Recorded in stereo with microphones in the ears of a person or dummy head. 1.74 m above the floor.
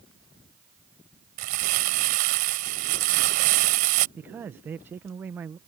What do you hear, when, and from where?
1.4 s crumpling: 45° right (ahead or behind)
4.2 s a man speaking: 15° right (ahead or behind)